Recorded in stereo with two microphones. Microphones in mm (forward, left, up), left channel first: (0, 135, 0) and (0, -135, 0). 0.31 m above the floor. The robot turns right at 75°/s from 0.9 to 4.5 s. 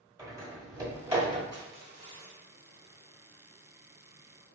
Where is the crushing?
65° right, 0.8 m; by 2.4 s straight ahead, 0.8 m.